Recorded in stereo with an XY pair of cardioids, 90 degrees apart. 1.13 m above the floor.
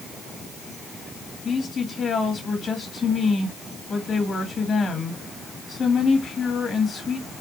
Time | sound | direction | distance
1.4 | a woman speaking | 50° left | 2 m